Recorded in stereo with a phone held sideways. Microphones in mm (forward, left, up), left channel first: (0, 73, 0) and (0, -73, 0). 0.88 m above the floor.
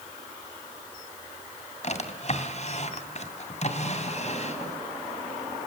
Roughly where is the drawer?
Left.